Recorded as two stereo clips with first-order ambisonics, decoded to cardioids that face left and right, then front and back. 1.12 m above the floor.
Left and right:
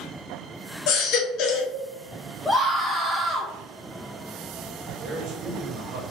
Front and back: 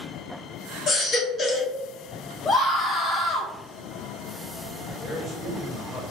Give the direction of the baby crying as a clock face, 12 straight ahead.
10 o'clock.